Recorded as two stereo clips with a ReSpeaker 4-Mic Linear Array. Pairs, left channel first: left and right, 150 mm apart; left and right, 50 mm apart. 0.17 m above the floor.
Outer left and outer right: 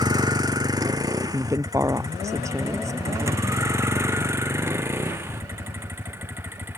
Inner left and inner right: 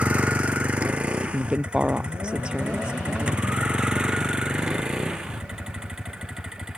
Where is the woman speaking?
20° right (ahead or behind).